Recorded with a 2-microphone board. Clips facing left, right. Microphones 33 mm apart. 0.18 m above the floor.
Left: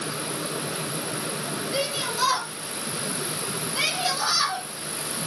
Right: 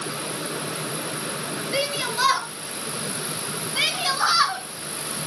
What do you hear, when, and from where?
1.7 s a shout: 55° right (ahead or behind), 3.5 m; by 4.6 s 35° right (ahead or behind), 2 m